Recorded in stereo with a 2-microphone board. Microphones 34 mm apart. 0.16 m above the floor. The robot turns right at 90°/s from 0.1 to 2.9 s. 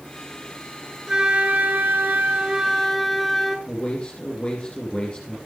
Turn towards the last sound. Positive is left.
turn(degrees=35)  # may be behind; listen again after turning